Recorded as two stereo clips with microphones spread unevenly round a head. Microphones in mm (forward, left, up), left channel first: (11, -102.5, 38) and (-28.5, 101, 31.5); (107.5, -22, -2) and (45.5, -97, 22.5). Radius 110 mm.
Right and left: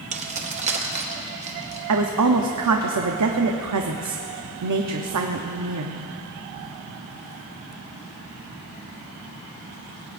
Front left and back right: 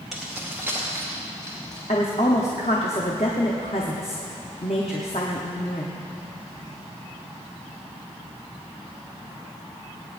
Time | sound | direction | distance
0.1 | keys jangling | 155° left | 0.9 m
1.9 | a woman speaking | 110° left | 0.8 m